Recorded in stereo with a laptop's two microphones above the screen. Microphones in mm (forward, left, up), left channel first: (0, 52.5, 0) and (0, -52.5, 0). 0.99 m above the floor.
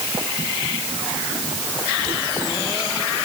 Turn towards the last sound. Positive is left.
No sound to turn to.